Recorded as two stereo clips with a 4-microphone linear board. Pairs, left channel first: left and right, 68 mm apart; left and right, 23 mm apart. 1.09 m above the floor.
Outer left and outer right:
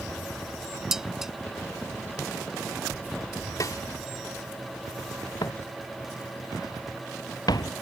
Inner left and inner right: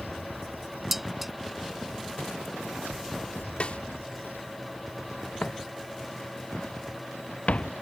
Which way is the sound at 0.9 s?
10° right (ahead or behind).